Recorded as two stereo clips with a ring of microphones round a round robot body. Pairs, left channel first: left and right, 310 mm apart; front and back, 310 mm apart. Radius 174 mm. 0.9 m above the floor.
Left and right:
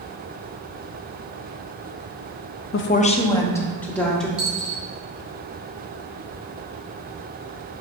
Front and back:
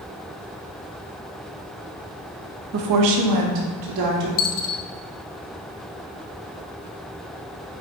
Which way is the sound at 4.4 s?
5° right.